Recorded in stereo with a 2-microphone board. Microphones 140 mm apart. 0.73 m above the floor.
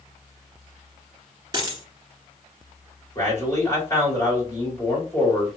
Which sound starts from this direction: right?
A dropped coin, at 1.5 s.